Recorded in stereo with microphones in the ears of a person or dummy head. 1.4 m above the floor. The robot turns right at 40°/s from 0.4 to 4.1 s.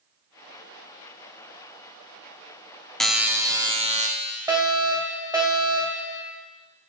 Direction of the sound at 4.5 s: 15° right (ahead or behind).